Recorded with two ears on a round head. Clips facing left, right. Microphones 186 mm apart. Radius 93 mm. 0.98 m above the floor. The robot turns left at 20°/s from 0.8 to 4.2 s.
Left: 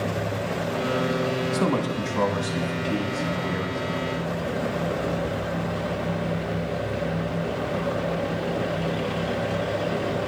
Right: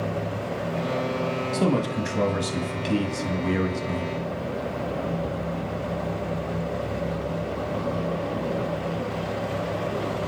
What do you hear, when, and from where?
1.5 s a man speaking: 5° right, 1.5 m; by 4.1 s 60° right, 1.5 m